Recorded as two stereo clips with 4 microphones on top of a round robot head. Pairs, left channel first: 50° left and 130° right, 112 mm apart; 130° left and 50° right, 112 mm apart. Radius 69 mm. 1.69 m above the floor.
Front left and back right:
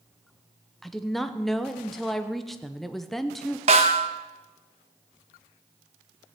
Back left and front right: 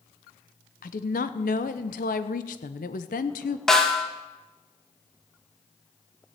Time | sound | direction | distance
0.8 | a woman speaking | 140° left | 0.8 m
3.7 | a snare drum | 145° right | 1.1 m